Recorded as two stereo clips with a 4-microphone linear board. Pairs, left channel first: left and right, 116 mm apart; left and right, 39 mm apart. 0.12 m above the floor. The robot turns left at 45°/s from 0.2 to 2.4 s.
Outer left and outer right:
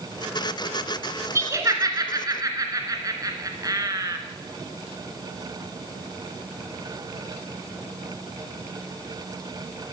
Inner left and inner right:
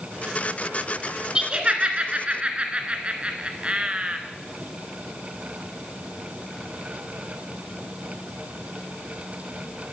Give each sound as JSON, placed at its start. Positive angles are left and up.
{"t": 1.4, "sound": "laughter", "side_deg": -25, "distance_m": 1.6}